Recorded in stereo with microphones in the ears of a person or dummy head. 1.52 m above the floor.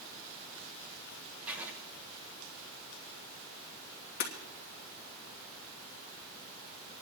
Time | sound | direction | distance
1.5 | writing | 10° right (ahead or behind) | 1.4 m
4.2 | breaking glass | 60° left (ahead or behind) | 2.5 m